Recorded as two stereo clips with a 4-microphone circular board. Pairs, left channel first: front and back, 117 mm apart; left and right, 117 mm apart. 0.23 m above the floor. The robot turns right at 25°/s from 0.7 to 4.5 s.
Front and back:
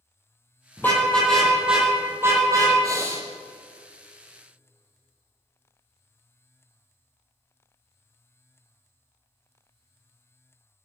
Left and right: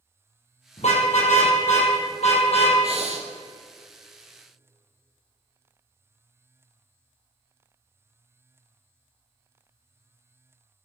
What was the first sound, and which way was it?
A car horn, 75° left.